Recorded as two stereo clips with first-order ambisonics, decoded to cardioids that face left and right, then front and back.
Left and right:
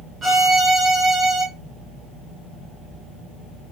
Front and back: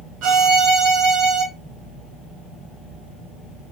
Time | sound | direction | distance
0.2 | a violin | 165° right | 0.9 m